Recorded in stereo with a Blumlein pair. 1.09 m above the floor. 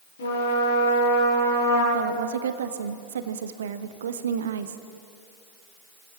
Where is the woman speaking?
60° right, 1.4 m.